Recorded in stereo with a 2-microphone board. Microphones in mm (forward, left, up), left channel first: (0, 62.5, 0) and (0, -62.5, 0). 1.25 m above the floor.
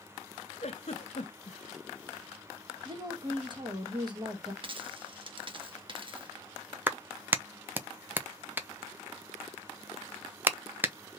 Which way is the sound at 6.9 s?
15° right (ahead or behind).